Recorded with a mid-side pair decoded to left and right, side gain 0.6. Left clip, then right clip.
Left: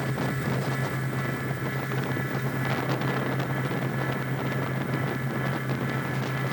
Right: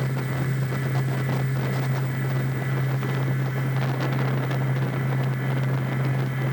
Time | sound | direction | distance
0.0 | a fan | 25° left | 3.5 m